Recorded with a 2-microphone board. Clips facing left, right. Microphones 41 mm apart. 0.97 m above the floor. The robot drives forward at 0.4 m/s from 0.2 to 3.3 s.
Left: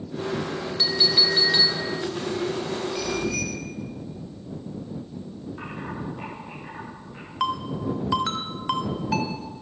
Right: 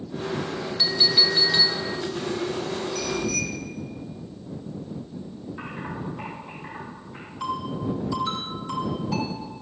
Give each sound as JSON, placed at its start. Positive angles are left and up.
{"t": 0.8, "sound": "a clink", "side_deg": 0, "distance_m": 2.5}
{"t": 3.0, "sound": "a bicycle bell", "side_deg": 30, "distance_m": 3.5}
{"t": 5.6, "sound": "typing on a keyboard", "side_deg": -5, "distance_m": 6.5}
{"t": 7.4, "sound": "a ringtone", "side_deg": 75, "distance_m": 1.6}